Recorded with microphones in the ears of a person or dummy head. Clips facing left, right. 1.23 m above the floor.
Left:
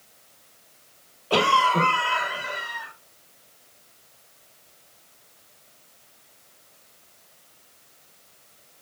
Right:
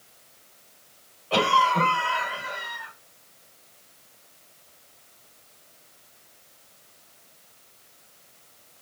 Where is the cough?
55° left (ahead or behind), 2.5 m.